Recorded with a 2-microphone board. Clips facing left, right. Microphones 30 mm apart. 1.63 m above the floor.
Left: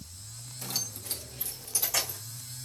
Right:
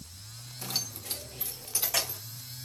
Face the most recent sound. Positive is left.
turn(degrees=-30)  # may be behind; listen again after turning